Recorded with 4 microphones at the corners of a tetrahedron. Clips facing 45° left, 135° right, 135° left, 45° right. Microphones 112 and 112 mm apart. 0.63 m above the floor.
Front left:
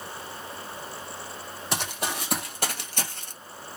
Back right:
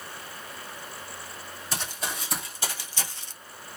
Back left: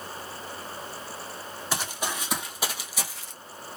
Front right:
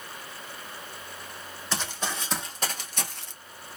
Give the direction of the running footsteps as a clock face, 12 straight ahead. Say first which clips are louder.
Front left 4 dB, back left 1 dB; 10 o'clock.